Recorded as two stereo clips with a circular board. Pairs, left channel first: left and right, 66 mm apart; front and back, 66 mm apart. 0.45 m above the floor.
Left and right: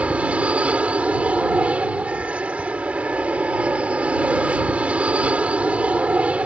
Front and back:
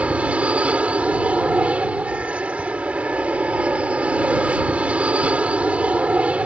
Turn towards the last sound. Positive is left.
turn(degrees=-135)